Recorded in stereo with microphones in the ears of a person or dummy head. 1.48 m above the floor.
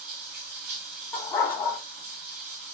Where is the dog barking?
15° left (ahead or behind), 1.6 m.